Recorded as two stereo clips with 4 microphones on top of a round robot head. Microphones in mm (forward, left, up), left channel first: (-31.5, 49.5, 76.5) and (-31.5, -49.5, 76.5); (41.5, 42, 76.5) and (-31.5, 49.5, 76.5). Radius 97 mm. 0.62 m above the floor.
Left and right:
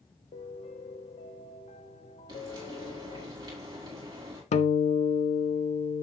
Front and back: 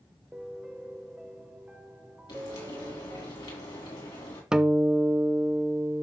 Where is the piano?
95° left, 1.1 m.